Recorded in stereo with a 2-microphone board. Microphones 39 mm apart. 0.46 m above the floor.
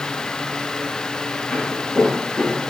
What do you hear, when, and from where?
1.5 s footsteps: 20° left (ahead or behind), 4.5 m; by 2.7 s 15° left (ahead or behind), 5.5 m